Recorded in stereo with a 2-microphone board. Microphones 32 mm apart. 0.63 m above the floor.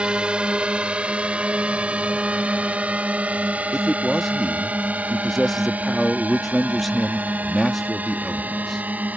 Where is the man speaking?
5° left (ahead or behind).